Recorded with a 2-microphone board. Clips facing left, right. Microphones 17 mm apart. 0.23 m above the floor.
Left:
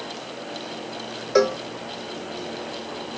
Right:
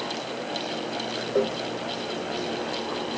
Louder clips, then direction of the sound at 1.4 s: Left 6 dB; 85° left.